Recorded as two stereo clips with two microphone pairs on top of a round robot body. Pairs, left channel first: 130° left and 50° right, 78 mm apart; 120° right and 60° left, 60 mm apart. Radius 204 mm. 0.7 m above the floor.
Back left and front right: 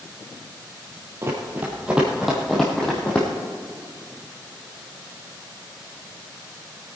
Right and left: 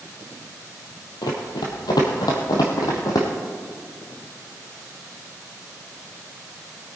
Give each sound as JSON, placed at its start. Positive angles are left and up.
{"t": 1.2, "sound": "running footsteps", "azimuth_deg": -105, "distance_m": 1.2}